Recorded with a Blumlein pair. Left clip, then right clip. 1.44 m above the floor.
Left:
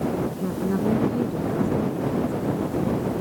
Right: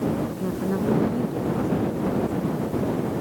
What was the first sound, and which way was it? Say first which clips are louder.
A woman speaking: even; straight ahead.